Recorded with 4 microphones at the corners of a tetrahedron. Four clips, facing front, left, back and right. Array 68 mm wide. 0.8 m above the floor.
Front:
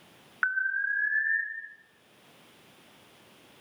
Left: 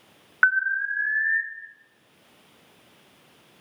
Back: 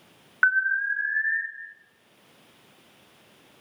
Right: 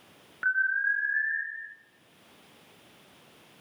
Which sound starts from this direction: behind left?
An alarm, at 0.4 s.